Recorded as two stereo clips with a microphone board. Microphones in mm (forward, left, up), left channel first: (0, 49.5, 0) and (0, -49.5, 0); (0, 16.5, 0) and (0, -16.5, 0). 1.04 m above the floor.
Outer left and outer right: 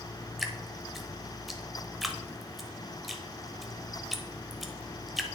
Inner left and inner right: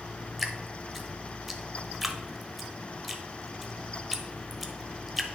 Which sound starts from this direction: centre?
Dripping, at 0.4 s.